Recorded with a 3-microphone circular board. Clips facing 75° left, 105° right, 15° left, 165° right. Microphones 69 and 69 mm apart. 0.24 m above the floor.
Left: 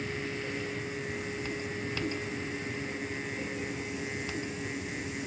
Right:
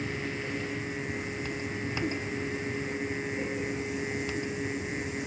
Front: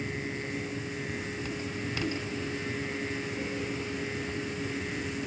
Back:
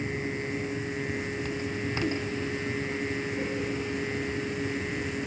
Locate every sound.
Only background noise.